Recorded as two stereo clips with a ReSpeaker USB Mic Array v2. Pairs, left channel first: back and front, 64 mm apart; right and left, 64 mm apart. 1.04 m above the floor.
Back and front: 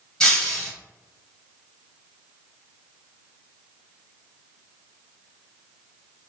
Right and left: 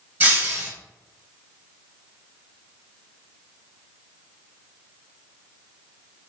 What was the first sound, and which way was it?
Breaking glass, 115° left.